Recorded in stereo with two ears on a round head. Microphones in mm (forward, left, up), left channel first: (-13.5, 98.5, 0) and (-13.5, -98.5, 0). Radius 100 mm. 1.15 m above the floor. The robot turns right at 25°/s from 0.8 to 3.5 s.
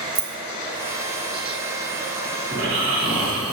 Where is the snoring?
60° right (ahead or behind), 1.2 m; by 3.5 s 80° right, 1.2 m.